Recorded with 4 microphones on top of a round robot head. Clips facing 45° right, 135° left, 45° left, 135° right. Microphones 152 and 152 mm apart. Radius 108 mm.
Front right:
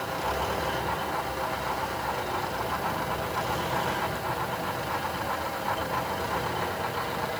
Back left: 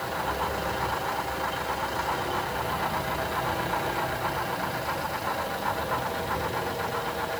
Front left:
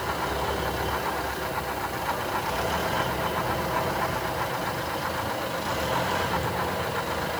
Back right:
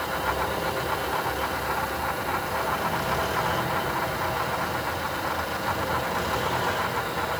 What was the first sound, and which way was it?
Only background noise.